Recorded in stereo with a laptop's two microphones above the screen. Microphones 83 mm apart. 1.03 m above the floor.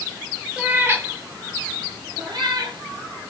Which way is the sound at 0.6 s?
15° right (ahead or behind).